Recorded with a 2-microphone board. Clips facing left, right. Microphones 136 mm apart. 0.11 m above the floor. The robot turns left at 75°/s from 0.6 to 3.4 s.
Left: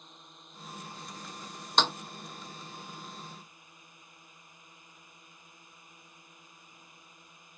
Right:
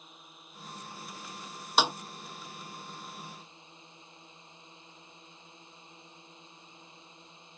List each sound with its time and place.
0.0 s a drone: 175° right; by 7.6 s 25° right
1.8 s a snare drum: 5° right (ahead or behind); by 1.9 s 20° right (ahead or behind)